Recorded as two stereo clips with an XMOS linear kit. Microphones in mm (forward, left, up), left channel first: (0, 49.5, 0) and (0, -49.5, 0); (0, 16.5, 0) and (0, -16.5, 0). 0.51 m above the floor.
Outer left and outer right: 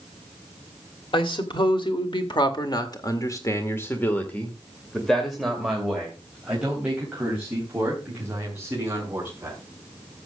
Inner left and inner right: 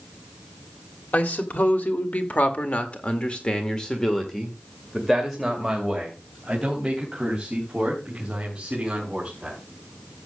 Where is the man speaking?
55° left (ahead or behind), 2 m; by 9.6 s 20° right (ahead or behind), 5 m.